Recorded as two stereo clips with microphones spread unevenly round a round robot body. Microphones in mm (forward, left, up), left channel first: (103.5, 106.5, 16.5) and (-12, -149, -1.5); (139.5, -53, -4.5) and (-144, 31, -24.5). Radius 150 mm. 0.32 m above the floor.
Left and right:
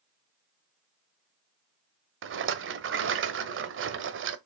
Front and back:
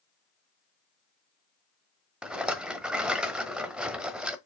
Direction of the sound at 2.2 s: 115° right.